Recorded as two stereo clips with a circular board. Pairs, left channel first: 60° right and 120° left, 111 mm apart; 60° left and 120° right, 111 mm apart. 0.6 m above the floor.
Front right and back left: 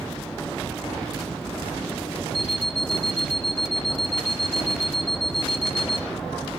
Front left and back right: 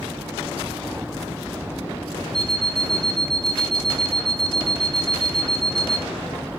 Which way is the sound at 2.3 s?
30° left.